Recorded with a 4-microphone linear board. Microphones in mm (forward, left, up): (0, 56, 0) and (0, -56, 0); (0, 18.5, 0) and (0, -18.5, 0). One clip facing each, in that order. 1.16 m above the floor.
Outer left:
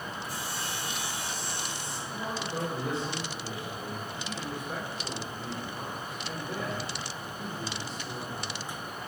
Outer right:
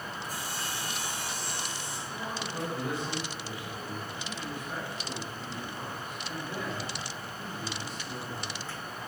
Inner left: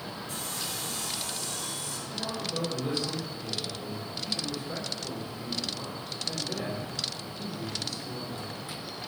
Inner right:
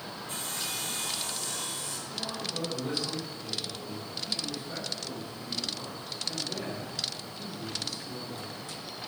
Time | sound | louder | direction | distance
0.3 | sawing | outer left 1 dB, inner right 2 dB | 45° right (ahead or behind) | 3.5 m
2.1 | a man speaking | outer left 3 dB, inner left 3 dB | 25° left (ahead or behind) | 4.5 m